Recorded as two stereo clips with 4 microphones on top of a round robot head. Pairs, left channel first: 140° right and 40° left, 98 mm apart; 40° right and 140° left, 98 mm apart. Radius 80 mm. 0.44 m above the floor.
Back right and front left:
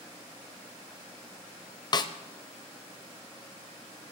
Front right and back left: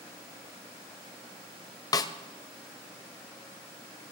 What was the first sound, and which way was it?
A snare drum, 95° right.